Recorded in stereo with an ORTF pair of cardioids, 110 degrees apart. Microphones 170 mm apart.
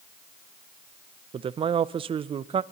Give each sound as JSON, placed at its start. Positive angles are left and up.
{"t": 1.3, "sound": "a man speaking", "azimuth_deg": -35, "distance_m": 0.5}